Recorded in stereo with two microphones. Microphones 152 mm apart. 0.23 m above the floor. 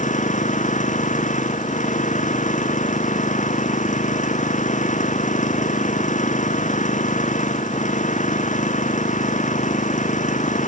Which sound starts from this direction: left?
An engine running, at 0.0 s.